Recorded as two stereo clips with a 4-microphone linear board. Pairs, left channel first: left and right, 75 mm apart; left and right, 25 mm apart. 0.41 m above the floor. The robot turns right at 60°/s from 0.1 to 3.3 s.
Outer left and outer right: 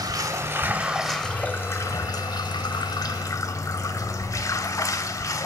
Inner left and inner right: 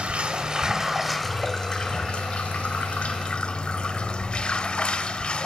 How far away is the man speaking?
I don't hear a man speaking.